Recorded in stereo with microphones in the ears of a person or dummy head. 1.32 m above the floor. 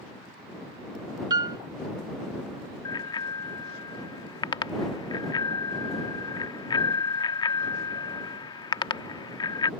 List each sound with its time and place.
1.3 s a piano: 25° right (ahead or behind)
2.9 s a bicycle bell: 25° left (ahead or behind)